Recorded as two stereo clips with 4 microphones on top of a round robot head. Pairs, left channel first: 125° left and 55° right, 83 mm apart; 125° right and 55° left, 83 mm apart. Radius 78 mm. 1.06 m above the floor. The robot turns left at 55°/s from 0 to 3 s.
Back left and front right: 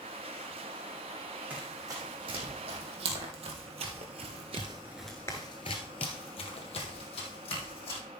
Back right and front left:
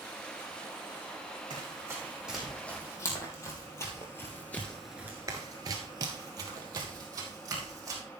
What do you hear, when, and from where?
1.5 s running footsteps: 15° left, 4.5 m; by 8.0 s 110° left, 4 m